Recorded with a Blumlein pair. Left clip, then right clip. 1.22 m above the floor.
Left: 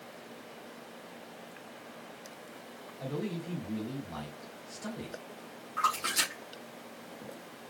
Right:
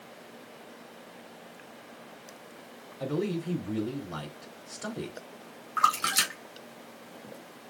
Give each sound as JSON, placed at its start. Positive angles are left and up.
{"t": 3.0, "sound": "a man speaking", "azimuth_deg": -60, "distance_m": 3.0}
{"t": 5.8, "sound": "a splash", "azimuth_deg": -65, "distance_m": 3.5}